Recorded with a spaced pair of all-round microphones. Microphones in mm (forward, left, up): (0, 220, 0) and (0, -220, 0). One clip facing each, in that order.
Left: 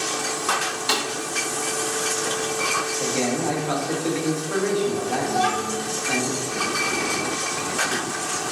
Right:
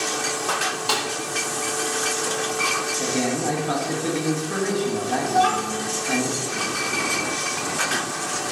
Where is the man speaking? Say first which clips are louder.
Even; 30° right (ahead or behind), 1.3 m.